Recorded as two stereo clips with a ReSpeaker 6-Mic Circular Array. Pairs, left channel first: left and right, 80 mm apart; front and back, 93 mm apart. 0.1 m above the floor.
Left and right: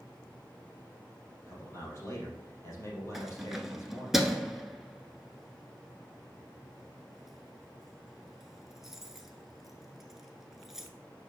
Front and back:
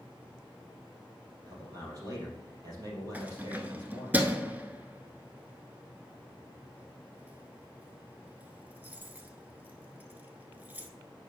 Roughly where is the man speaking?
Behind left.